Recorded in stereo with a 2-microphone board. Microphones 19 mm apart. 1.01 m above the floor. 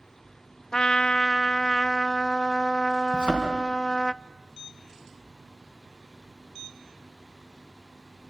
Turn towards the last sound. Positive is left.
turn(degrees=-65)  # may be behind; listen again after turning